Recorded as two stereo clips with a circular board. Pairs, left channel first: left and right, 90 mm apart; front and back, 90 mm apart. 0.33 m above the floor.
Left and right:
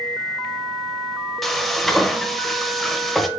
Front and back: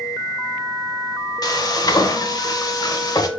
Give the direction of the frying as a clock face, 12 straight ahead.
12 o'clock.